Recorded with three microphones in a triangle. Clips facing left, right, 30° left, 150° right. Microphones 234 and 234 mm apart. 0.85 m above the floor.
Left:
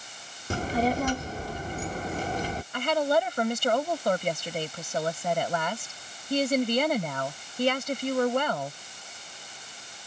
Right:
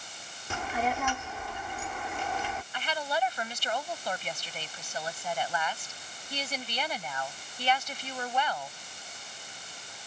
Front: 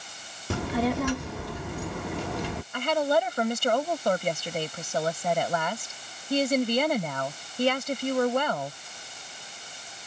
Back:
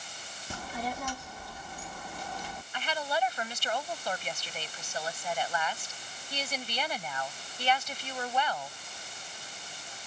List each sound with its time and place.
0.5 s a child speaking: 40° left
2.7 s a woman speaking: 60° left